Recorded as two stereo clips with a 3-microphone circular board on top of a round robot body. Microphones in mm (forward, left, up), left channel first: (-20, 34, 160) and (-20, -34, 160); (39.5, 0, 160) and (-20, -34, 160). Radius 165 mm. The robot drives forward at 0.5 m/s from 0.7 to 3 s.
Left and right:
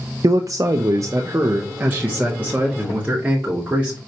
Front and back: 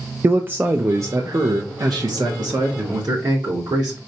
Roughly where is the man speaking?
Right.